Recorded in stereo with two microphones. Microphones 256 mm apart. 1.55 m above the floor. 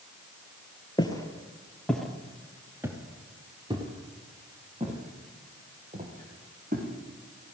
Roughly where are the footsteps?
Centre.